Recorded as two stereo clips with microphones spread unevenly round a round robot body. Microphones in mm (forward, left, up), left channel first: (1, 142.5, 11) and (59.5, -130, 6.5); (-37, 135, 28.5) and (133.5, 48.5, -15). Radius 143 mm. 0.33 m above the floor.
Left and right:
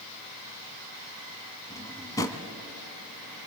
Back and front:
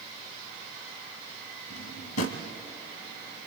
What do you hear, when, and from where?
1.7 s a drawer: straight behind, 1.5 m